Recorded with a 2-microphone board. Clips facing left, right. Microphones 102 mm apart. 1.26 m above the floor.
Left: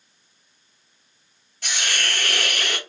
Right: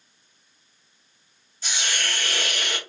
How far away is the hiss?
About 0.8 m.